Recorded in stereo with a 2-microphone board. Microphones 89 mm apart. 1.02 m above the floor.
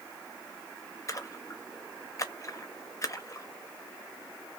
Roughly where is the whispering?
I don't hear whispering.